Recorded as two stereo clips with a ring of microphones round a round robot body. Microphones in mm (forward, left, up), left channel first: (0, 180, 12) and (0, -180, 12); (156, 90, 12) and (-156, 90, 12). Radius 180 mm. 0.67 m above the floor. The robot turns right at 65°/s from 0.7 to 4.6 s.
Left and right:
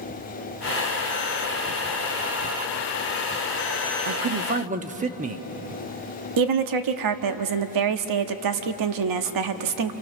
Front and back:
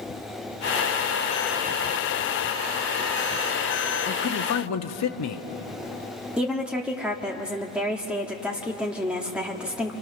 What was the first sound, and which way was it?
A man speaking, 60° right.